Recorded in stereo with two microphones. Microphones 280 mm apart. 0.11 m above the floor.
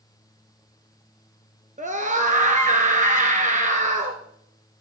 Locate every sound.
1.8 s a scream: 25° right (ahead or behind), 1.3 m